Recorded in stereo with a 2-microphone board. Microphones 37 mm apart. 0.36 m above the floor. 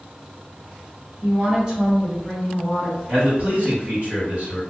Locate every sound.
1.2 s a woman speaking: 35° right (ahead or behind), 1.3 m; by 3.0 s 20° left (ahead or behind), 1.1 m
3.1 s a man speaking: 45° right (ahead or behind), 1.7 m